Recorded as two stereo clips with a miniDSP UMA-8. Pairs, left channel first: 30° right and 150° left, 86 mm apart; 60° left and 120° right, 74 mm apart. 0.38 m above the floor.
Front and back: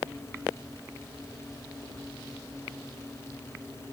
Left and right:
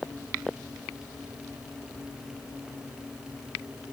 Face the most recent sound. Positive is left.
No sound to turn to.